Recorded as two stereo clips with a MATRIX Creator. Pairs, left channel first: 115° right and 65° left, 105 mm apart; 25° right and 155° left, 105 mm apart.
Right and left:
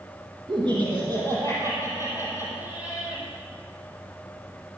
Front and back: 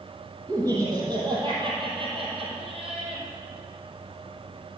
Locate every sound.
0.5 s laughter: 105° left, 4 m; by 3.2 s 150° left, 4.5 m